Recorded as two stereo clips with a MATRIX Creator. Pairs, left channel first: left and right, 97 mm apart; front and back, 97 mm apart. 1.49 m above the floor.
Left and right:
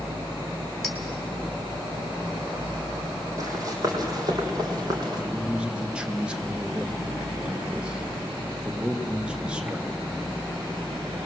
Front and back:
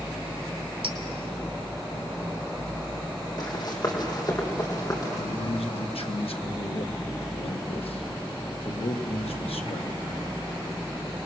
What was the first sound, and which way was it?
A clink, straight behind.